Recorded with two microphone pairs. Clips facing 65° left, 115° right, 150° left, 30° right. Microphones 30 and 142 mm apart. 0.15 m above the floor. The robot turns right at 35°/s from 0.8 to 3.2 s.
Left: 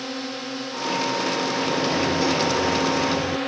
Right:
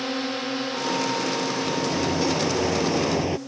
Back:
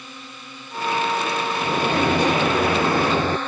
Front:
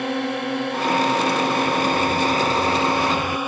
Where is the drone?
35° right; by 3.5 s 45° left.